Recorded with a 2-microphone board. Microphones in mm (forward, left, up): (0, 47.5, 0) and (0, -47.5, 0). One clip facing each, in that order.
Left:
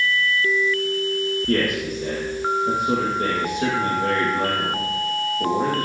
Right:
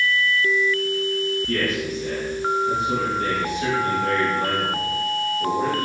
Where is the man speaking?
50° left (ahead or behind), 6 m.